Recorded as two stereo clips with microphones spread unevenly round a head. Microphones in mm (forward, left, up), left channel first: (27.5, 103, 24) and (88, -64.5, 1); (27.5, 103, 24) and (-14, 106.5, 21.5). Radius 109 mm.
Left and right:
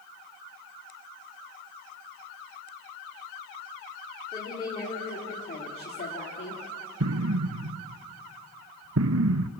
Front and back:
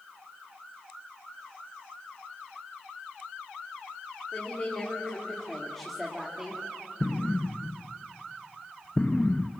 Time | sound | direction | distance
4.3 | a woman speaking | 45° left | 4 m
7.0 | an explosion | 85° right | 0.6 m